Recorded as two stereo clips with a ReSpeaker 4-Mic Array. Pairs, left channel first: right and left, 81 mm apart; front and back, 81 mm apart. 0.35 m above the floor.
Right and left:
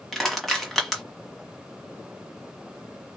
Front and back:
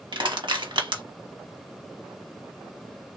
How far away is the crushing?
About 1.3 m.